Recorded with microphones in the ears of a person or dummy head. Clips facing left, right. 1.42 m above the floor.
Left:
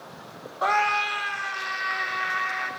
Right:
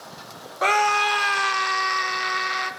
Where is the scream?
30° right (ahead or behind), 0.6 m; by 2.7 s 50° right (ahead or behind), 1.9 m.